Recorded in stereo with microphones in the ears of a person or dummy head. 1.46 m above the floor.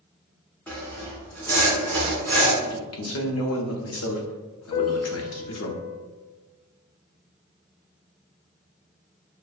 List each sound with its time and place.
0.7 s sawing: 10° left (ahead or behind), 0.9 m
2.6 s a man speaking: 70° left (ahead or behind), 0.8 m
4.7 s a piano: 30° left (ahead or behind), 0.6 m